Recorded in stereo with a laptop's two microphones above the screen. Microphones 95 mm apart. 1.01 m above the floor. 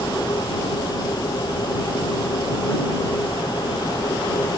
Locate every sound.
0.0 s a machine running: 45° left (ahead or behind)